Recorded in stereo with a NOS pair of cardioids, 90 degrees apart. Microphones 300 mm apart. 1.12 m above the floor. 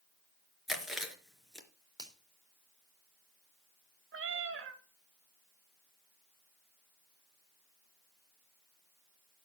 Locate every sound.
0.7 s chewing: straight ahead, 3.5 m
2.0 s a finger snap: 15° right, 3.5 m
4.1 s a cat meowing: 45° right, 2 m